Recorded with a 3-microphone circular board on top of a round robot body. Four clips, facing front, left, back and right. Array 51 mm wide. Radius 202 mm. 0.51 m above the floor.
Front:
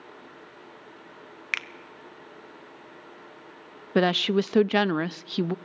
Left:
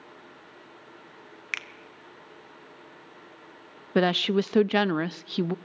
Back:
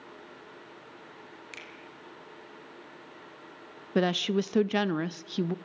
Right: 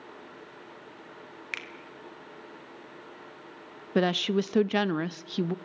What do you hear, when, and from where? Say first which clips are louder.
1.5 s a finger snap: left 4 dB, front 17 dB; 15° left, 1.3 m
4.0 s a woman speaking: left 2 dB, front 4 dB; 35° left, 0.7 m